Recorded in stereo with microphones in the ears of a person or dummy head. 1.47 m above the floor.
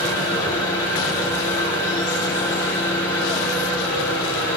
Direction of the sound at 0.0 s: 25° left (ahead or behind).